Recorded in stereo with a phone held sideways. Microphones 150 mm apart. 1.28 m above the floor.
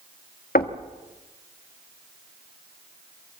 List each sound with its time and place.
0.6 s knocking: 75° left (ahead or behind), 1.6 m